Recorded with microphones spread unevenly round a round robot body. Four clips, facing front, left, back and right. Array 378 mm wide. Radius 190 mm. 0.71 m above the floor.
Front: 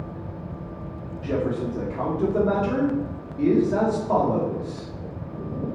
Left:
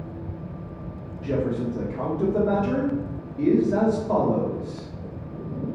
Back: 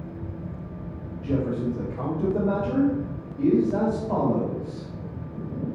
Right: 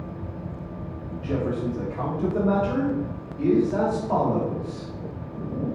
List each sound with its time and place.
1.2 s a man speaking: 90° left, 1.9 m